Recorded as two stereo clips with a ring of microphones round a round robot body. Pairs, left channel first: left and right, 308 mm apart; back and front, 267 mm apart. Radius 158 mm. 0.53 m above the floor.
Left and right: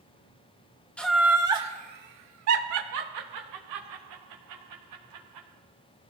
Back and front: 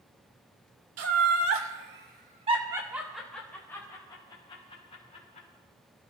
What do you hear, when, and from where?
1.0 s laughter: 5° left, 2 m; by 5.5 s 115° right, 5 m